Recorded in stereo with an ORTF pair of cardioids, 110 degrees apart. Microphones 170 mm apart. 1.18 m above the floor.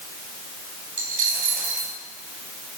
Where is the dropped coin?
50° right, 4 m.